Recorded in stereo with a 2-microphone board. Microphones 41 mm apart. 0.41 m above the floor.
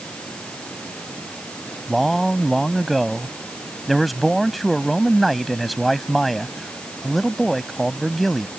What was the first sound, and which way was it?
Running water, 25° left (ahead or behind).